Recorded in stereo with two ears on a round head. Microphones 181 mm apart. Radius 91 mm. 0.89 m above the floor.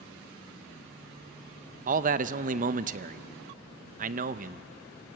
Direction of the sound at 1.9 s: 40° right (ahead or behind).